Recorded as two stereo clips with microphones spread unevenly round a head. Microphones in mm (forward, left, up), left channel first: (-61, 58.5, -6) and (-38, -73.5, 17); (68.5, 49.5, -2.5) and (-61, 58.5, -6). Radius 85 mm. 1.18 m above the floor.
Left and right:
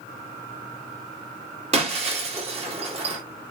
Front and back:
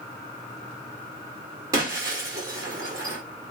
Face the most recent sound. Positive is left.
turn(degrees=-115)